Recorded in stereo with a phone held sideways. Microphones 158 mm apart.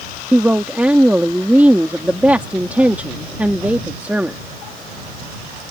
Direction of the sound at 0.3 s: 10° right (ahead or behind).